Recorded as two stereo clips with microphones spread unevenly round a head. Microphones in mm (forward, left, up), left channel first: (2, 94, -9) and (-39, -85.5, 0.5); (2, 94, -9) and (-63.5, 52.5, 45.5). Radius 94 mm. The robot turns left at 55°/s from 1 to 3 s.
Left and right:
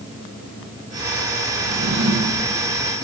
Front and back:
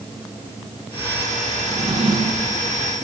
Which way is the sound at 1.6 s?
105° right.